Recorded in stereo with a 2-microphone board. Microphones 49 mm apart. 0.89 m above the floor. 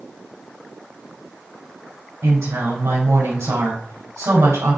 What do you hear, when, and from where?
2.2 s a woman speaking: 80° right, 4 m